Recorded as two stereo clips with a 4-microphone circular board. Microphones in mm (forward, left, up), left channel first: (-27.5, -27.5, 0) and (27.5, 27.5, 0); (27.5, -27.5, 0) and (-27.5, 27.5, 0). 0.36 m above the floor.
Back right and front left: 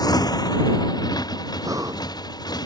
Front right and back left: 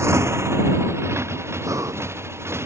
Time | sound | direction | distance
0.0 | a motorcycle | 170° right | ?
1.6 | breathing | 90° left | ?